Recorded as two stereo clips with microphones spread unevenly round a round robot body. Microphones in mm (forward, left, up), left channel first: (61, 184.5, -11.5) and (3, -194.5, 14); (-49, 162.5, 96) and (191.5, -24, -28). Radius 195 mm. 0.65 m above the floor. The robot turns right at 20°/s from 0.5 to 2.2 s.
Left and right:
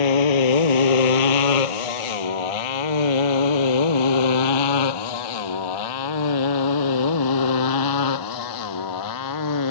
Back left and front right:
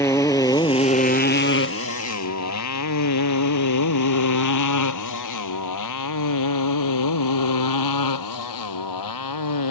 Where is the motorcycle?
65° left; by 9.7 s 130° left.